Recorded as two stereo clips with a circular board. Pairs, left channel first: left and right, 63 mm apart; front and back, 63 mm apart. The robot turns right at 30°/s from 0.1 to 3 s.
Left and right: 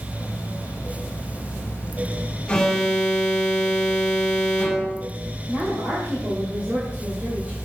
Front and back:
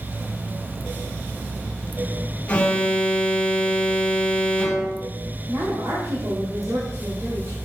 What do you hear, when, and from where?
2.5 s an alarm: 30° left, 1.5 m; by 5.1 s 50° left, 1.5 m
5.5 s a woman speaking: 150° right, 2.5 m